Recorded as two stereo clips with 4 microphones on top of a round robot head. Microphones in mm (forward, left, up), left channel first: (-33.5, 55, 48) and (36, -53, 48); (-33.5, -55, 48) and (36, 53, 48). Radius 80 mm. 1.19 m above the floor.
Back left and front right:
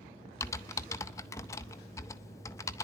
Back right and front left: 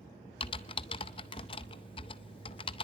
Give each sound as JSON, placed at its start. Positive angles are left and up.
{"t": 0.4, "sound": "typing on a keyboard", "azimuth_deg": -170, "distance_m": 0.6}